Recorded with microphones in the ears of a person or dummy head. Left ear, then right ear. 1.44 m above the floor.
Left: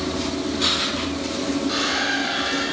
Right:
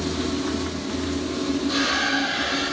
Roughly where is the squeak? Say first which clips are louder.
Right 1 dB; centre.